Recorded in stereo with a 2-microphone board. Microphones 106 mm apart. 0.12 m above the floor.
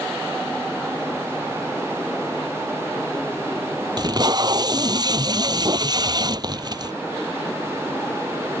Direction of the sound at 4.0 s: 40° right (ahead or behind).